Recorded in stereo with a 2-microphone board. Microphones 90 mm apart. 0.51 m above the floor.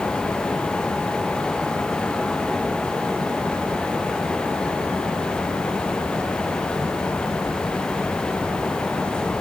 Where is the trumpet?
I don't hear a trumpet.